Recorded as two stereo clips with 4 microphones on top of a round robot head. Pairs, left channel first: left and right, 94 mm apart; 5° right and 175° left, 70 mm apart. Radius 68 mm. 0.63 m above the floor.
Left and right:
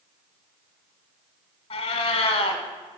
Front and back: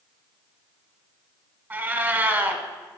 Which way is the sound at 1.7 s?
115° left.